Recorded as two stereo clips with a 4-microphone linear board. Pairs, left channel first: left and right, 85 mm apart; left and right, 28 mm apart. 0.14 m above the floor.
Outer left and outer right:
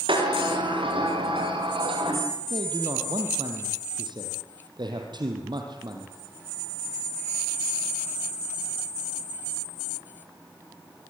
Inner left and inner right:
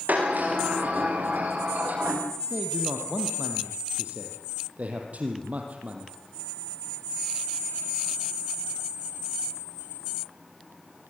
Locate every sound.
0.1 s a sliding door: 90° right, 9 m
2.5 s a man speaking: 60° right (ahead or behind), 4.5 m